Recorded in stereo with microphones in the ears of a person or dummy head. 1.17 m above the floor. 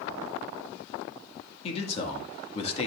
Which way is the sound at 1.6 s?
35° left (ahead or behind).